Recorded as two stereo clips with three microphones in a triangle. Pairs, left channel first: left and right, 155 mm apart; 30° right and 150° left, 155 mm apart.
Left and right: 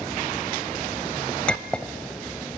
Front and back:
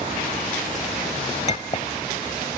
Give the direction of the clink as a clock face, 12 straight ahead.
12 o'clock.